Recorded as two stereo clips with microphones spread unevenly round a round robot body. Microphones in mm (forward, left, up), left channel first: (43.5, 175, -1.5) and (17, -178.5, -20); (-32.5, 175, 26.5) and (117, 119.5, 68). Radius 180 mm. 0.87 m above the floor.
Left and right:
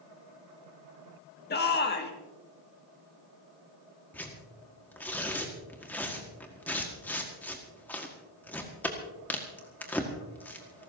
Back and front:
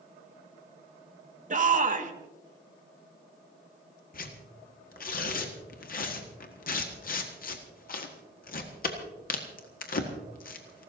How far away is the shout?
About 1.9 m.